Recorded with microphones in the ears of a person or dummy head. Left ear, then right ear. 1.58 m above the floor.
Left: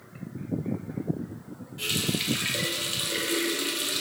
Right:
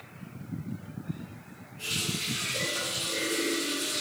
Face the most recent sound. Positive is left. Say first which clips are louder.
# left 3 dB
turn(degrees=35)  # may be behind; listen again after turning